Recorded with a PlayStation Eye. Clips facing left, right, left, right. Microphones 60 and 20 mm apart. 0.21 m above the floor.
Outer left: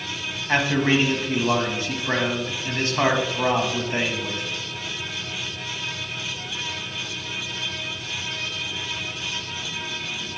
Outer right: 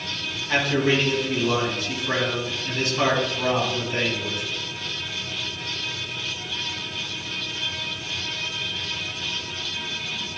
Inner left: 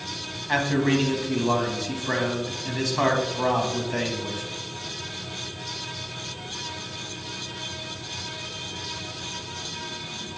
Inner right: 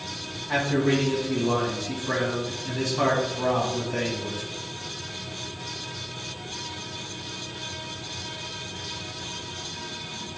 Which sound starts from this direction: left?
A man speaking, at 0.5 s.